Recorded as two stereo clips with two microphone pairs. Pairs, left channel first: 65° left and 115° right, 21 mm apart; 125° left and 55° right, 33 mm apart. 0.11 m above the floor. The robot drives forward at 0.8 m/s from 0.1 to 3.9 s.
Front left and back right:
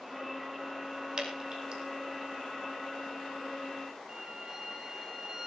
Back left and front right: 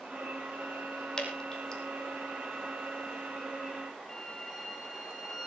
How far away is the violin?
About 2.5 m.